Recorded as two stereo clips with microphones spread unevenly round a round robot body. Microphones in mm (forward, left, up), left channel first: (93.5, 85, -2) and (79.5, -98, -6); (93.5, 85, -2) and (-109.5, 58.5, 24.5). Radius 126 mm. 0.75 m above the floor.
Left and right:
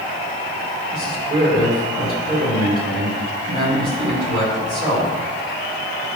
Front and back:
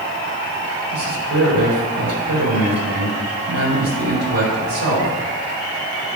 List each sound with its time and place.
0.9 s a man speaking: 155° right, 3.5 m